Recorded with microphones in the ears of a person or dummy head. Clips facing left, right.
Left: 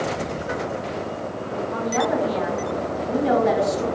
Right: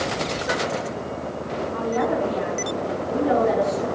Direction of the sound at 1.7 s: 70° left (ahead or behind).